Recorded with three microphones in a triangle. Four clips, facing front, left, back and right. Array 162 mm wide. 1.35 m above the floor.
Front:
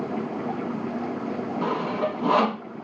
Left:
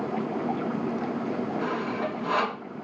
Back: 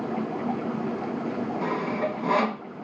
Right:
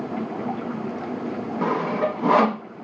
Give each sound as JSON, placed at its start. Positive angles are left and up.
{"t": 1.6, "sound": "sawing", "azimuth_deg": -70, "distance_m": 0.8}